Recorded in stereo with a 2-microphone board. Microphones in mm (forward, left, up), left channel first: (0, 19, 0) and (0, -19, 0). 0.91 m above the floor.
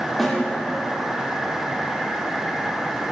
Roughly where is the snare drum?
Centre.